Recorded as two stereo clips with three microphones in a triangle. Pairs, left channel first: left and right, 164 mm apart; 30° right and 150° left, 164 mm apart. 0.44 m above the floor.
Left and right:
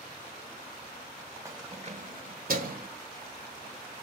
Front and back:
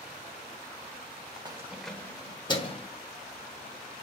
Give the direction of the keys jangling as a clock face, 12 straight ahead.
5 o'clock.